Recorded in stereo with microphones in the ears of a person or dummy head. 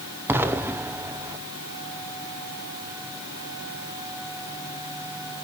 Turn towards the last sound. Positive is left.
turn(degrees=-10)  # may be behind; listen again after turning